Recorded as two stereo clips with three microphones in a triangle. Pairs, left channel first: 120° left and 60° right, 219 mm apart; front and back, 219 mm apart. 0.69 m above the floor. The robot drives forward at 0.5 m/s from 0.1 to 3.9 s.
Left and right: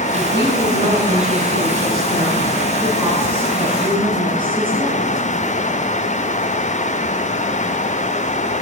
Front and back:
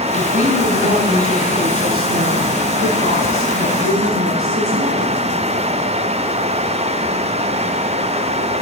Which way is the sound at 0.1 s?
130° right.